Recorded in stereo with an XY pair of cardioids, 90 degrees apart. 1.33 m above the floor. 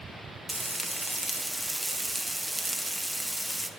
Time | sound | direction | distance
0.5 | frying | 15° right | 1.8 m